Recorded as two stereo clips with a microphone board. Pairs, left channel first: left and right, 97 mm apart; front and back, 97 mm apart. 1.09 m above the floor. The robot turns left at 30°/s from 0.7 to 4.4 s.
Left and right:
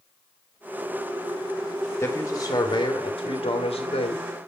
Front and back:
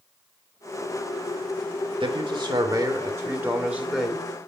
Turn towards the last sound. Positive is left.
turn(degrees=85)